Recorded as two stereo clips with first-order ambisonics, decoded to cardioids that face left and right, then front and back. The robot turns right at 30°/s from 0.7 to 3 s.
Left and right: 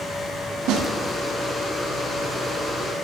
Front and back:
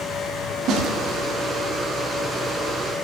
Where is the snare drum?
125° right, 2.5 m; by 0.9 s 120° right, 2.5 m.